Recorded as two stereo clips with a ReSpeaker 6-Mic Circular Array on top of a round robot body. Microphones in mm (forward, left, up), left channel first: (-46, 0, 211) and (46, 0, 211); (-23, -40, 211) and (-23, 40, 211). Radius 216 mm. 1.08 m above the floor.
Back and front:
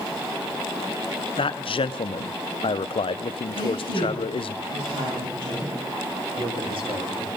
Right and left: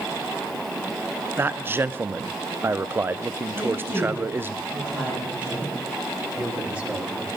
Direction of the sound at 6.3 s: 20° left.